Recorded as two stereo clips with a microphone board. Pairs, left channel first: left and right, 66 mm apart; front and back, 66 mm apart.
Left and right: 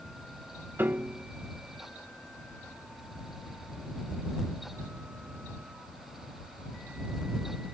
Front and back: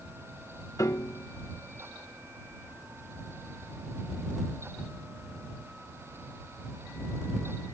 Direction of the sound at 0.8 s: 30° right.